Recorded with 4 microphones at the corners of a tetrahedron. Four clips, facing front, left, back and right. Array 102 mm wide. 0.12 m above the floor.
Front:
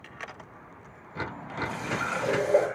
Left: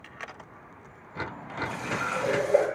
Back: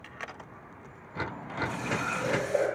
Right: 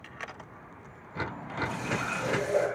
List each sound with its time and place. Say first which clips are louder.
1.6 s a running tap: left 2 dB, front 1 dB; 45° left, 7 m